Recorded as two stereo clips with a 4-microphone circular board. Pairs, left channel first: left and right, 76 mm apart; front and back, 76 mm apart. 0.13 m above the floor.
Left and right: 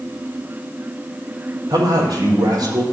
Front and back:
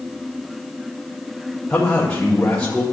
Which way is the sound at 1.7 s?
75° right.